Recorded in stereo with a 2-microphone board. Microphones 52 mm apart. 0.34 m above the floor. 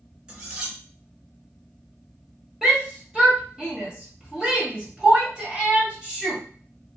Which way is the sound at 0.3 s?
25° right (ahead or behind).